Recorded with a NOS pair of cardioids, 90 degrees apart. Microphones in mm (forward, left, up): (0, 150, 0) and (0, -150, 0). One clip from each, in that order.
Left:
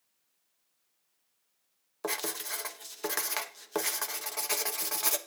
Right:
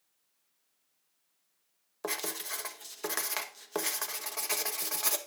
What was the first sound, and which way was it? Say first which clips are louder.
Writing: left 1 dB; 5° left.